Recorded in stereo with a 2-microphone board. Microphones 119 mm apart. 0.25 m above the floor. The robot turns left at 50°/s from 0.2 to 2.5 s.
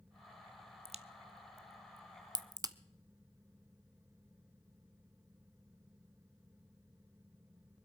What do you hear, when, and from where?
0.8 s a crack: 60° right (ahead or behind), 0.5 m; by 2.8 s 30° right (ahead or behind), 0.5 m